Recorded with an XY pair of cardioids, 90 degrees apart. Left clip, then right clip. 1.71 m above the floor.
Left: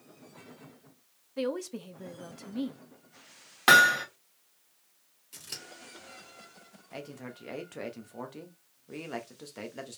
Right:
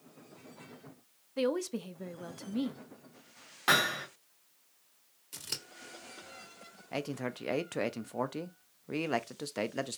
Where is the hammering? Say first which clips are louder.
Left 8 dB; 65° left, 1.3 m.